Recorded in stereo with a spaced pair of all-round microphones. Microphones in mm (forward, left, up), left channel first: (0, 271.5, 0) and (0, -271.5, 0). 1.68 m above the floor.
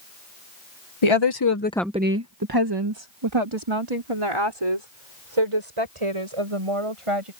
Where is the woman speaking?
60° left (ahead or behind); by 7.3 s 70° right (ahead or behind).